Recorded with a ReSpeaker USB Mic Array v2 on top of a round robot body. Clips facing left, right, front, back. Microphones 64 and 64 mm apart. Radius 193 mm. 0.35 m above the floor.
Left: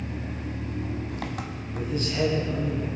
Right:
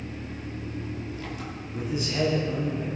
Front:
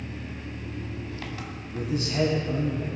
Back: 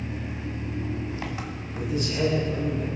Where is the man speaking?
10° right, 4 m.